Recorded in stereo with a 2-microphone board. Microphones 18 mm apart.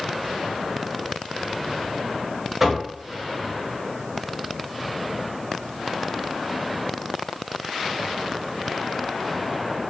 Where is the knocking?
15° right (ahead or behind), 0.9 m.